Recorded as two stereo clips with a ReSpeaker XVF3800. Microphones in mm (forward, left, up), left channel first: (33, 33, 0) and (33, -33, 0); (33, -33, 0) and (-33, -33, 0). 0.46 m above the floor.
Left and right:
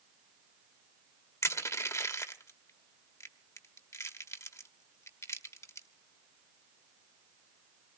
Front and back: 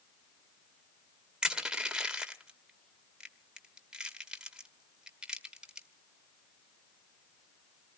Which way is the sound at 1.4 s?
105° left.